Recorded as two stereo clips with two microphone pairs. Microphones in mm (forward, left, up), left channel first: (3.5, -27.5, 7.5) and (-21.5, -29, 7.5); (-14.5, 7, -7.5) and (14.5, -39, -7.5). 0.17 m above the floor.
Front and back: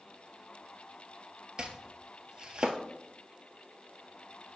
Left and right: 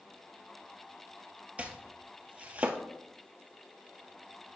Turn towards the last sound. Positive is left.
turn(degrees=-120)